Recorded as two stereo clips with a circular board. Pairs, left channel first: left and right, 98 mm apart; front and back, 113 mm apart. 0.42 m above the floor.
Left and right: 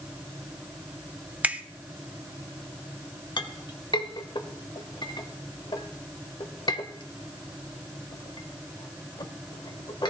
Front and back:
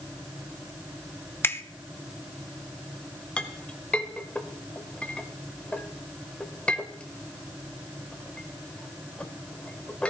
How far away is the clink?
About 1.2 m.